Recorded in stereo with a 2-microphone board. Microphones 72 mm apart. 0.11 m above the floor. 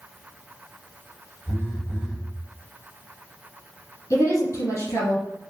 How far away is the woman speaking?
About 1.3 m.